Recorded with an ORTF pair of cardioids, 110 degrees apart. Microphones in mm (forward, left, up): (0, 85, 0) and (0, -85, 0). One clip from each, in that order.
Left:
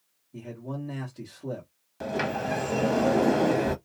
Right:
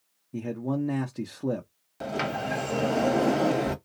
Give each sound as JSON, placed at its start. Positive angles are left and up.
{"t": 0.3, "sound": "a man speaking", "azimuth_deg": -55, "distance_m": 0.8}
{"t": 2.0, "sound": "a sliding door", "azimuth_deg": -5, "distance_m": 0.9}